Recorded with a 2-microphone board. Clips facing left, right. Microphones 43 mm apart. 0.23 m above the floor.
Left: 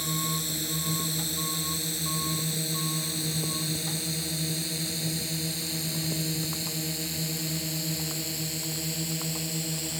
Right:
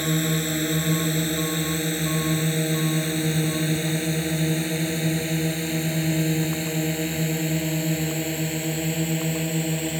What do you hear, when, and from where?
0.0 s a drone: 45° right (ahead or behind); by 10.0 s 35° right (ahead or behind)